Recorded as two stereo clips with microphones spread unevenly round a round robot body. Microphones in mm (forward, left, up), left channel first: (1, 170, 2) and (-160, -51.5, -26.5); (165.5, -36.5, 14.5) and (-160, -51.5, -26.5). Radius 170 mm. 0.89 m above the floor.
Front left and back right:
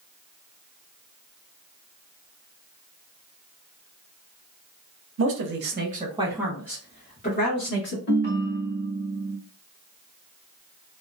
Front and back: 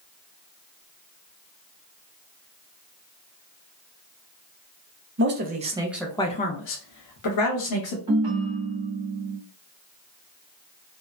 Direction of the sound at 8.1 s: 105° left.